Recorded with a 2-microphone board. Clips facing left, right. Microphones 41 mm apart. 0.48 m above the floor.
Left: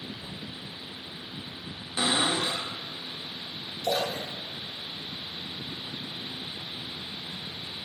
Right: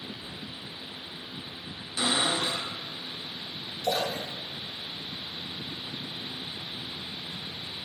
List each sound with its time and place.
0.2 s a cupboard door: 50° left (ahead or behind), 1.1 m
2.0 s a cupboard door: 35° left (ahead or behind), 0.7 m
3.8 s a splash: 5° right (ahead or behind), 1.0 m